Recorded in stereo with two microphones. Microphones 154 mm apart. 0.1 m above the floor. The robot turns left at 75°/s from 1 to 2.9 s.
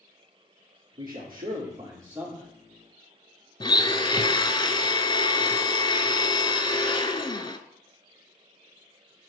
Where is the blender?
30° left (ahead or behind), 0.6 m.